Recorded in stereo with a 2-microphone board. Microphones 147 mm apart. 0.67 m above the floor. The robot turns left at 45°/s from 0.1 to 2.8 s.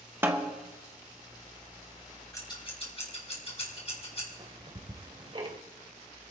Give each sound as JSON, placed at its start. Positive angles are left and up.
{"t": 0.2, "sound": "a snare drum", "side_deg": -15, "distance_m": 1.3}
{"t": 2.3, "sound": "scissors", "side_deg": 20, "distance_m": 5.5}
{"t": 4.4, "sound": "ticking", "side_deg": -40, "distance_m": 1.7}